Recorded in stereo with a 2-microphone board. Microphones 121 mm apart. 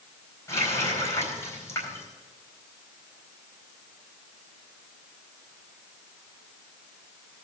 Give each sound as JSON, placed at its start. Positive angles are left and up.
{"t": 0.5, "sound": "a running tap", "side_deg": 25, "distance_m": 4.5}